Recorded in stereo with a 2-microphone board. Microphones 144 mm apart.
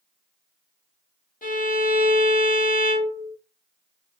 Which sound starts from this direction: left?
A violin, at 1.4 s.